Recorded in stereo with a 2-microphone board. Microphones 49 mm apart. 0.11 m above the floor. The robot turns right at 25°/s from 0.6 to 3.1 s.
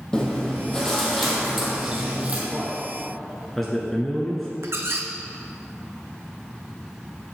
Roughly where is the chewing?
Behind.